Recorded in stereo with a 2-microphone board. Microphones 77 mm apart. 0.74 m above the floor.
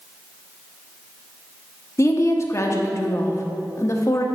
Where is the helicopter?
I don't hear a helicopter.